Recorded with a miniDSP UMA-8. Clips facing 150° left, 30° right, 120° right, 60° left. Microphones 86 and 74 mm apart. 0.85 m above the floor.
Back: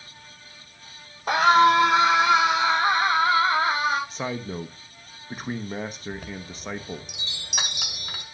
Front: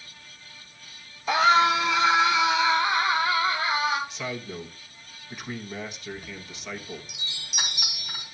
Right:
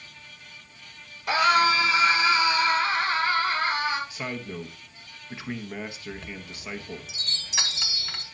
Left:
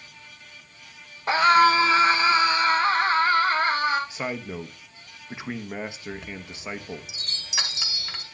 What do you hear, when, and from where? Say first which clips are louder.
1.3 s a scream: back 3 dB, left 4 dB; 115° left, 3 m; by 4.0 s 110° left, 4.5 m
4.1 s a man speaking: back 3 dB, left 3 dB; 120° left, 1.0 m
6.1 s a chime: back 3 dB, left 2 dB; 145° left, 1.7 m